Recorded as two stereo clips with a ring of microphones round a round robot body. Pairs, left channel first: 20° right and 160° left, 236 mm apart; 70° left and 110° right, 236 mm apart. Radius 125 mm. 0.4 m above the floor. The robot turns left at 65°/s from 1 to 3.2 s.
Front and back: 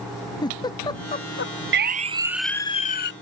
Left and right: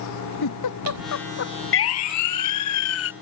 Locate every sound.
0.4 s a giggle: 50° left; by 1.5 s 15° left
1.7 s a siren: 110° left; by 3.1 s 25° left